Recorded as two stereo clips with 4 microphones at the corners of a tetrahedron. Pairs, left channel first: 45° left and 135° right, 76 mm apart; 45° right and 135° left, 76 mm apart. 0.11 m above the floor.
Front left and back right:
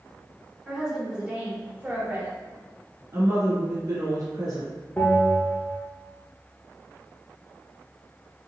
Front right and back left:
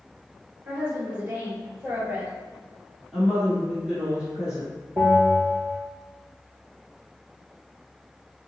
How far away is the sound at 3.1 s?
About 1.7 m.